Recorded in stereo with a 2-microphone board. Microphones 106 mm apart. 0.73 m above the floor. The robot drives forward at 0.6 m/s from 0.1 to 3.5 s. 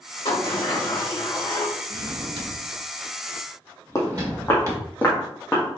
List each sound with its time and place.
0.2 s a sliding door: 55° left (ahead or behind), 1.9 m; by 1.7 s 40° left (ahead or behind), 2.5 m
1.9 s a drawer: 75° right (ahead or behind), 0.8 m; by 4.8 s 35° right (ahead or behind), 1.3 m
4.0 s footsteps: 30° left (ahead or behind), 1.6 m; by 5.6 s 10° left (ahead or behind), 2.5 m